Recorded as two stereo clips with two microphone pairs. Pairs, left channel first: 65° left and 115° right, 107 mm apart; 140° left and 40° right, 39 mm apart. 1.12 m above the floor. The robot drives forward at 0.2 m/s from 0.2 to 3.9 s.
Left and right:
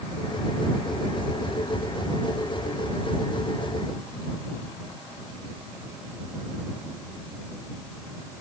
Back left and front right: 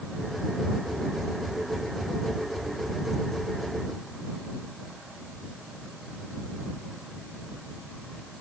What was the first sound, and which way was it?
Only background noise.